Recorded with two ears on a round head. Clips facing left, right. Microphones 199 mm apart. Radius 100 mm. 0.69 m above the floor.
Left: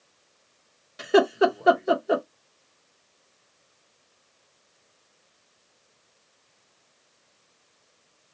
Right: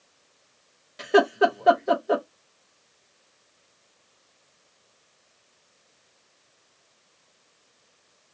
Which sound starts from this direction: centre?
Laughter, at 1.0 s.